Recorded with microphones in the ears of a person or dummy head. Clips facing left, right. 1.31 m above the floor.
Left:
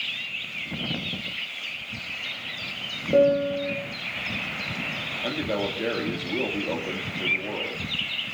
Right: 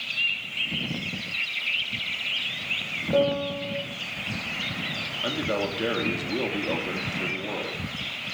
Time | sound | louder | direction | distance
3.1 | a piano | left 4 dB | 25° left (ahead or behind) | 2 m
5.2 | a man speaking | even | centre (ahead or behind) | 3 m